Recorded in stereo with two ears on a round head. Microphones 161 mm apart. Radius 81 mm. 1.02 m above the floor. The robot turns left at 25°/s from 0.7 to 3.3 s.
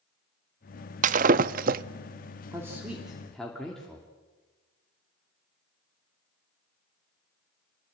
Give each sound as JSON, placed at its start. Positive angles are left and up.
{"t": 1.0, "sound": "breaking glass", "side_deg": -45, "distance_m": 0.5}
{"t": 2.5, "sound": "a man speaking", "side_deg": -15, "distance_m": 2.5}